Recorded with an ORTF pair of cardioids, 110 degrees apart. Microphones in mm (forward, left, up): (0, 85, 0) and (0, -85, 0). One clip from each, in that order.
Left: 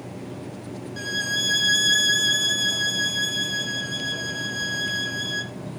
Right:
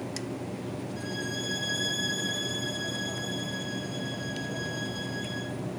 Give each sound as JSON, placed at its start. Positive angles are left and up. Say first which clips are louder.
{"t": 1.0, "sound": "a violin", "louder": "left 12 dB", "azimuth_deg": 60, "distance_m": 0.7}